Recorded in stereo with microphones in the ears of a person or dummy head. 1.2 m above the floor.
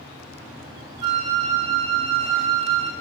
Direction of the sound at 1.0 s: 25° right (ahead or behind).